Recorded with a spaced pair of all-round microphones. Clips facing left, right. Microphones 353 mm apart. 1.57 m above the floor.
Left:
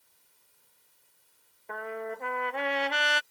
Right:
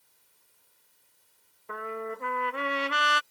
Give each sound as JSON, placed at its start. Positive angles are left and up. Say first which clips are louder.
{"t": 1.7, "sound": "a trumpet", "louder": "right 1 dB", "side_deg": -15}